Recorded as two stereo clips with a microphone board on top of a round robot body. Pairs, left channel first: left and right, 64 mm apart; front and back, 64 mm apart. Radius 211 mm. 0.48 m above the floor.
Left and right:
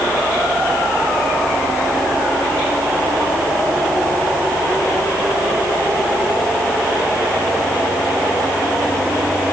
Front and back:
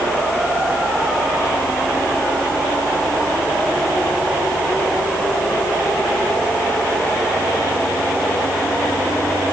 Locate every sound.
Only background noise.